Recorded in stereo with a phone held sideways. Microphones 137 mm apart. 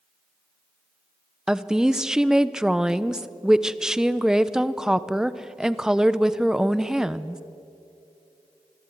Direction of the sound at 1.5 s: 5° right (ahead or behind).